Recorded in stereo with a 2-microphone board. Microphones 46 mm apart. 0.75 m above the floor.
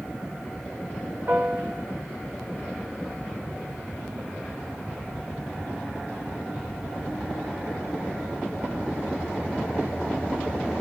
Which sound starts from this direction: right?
A piano, at 1.3 s.